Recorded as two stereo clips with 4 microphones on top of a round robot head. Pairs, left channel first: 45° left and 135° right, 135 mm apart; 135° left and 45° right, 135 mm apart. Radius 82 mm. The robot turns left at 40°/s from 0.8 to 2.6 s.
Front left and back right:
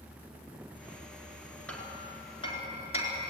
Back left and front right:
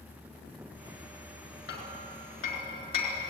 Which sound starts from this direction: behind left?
Hammering, at 1.7 s.